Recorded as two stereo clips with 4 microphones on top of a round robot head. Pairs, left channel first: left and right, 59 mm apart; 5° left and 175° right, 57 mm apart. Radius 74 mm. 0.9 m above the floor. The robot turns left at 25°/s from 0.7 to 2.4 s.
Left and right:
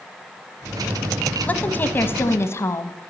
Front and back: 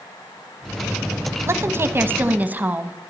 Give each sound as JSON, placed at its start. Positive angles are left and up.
{"t": 1.5, "sound": "a woman speaking", "azimuth_deg": 150, "distance_m": 1.1}